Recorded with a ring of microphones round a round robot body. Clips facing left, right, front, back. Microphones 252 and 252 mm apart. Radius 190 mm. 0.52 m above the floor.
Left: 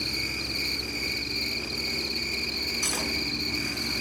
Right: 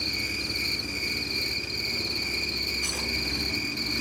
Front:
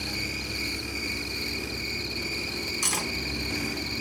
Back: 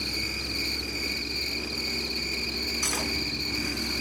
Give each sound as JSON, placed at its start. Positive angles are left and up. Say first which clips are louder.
{"t": 0.0, "sound": "an insect", "louder": "even, front 1 dB", "azimuth_deg": -125, "distance_m": 2.0}
{"t": 2.8, "sound": "cutlery clinking", "louder": "left 5 dB, back 1 dB", "azimuth_deg": 40, "distance_m": 3.5}